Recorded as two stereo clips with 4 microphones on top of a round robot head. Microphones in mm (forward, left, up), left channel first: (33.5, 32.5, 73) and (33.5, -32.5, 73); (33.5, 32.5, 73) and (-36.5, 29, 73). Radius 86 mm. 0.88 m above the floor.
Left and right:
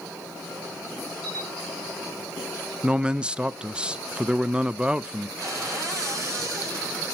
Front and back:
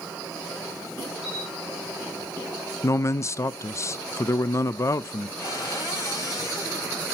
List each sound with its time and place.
1.2 s a camera shutter: 20° right, 9 m
2.8 s a man speaking: 20° right, 0.6 m
5.4 s a cupboard door: 50° right, 8.5 m